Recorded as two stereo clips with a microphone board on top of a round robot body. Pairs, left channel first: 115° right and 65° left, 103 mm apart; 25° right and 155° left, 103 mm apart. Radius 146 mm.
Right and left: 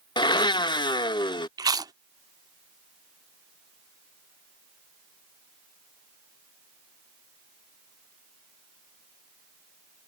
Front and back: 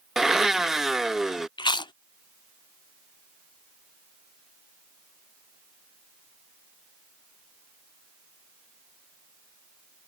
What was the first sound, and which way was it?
A blender, 120° right.